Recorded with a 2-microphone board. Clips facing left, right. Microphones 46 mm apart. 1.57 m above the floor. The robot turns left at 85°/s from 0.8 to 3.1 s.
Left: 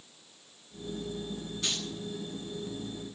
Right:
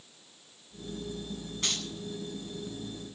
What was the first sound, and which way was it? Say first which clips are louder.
Keys jangling: right 1 dB; 50° right (ahead or behind).